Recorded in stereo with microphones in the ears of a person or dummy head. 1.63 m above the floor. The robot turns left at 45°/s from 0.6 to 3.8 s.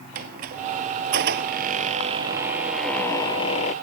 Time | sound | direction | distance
0.1 | a squeak | 80° right | ?